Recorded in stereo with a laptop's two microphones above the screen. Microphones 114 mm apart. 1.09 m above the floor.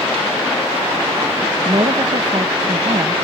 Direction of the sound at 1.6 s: 55° right (ahead or behind).